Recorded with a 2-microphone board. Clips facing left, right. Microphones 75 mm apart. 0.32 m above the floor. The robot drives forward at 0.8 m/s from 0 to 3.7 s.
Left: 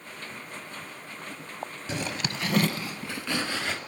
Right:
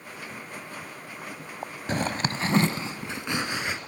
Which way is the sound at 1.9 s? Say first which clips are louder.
Right 5 dB; 50° right (ahead or behind).